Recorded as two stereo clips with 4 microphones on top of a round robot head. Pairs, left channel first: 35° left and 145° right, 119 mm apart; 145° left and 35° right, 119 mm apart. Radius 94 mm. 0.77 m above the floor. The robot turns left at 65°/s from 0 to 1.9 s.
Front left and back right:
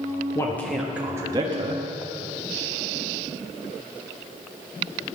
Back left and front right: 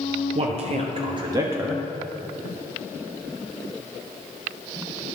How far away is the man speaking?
About 1.3 m.